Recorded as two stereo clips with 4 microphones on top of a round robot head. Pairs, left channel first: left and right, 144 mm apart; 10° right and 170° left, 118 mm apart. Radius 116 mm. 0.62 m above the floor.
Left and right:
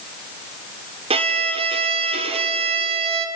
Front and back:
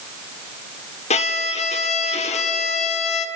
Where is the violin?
40° right, 1.5 m.